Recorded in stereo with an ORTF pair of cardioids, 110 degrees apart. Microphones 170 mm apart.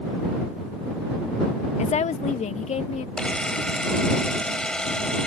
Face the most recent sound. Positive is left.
turn(degrees=5)